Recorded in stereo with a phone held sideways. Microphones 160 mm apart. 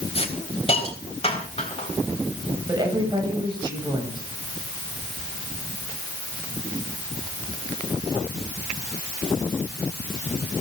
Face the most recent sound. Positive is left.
turn(degrees=-25)  # may be behind; listen again after turning